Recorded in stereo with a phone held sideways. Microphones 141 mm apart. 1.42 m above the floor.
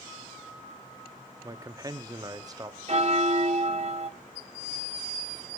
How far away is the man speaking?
About 0.5 m.